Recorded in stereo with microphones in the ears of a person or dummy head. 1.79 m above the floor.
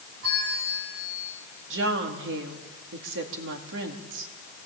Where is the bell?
80° right, 7.5 m.